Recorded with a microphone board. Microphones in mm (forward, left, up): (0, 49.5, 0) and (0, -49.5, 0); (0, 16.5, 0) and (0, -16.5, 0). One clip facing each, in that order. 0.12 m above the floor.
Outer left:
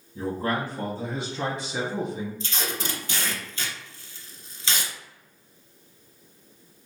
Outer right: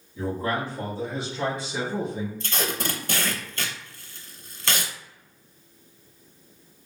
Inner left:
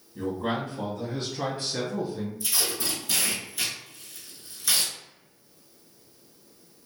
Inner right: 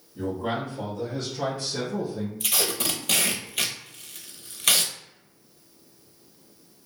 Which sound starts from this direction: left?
A man speaking, at 0.1 s.